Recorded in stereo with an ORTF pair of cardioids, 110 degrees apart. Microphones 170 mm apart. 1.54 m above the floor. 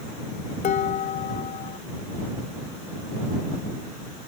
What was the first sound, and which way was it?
Dishes clattering, 55° left.